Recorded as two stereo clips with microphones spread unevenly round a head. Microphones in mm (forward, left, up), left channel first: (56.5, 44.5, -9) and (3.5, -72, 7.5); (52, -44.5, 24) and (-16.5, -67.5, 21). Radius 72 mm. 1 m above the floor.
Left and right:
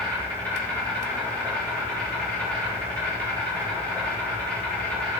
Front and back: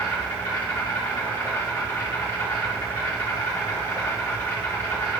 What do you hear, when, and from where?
0.0 s an insect: 10° right, 3 m